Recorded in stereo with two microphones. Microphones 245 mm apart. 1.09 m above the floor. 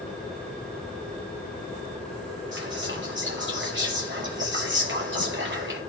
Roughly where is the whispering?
Right.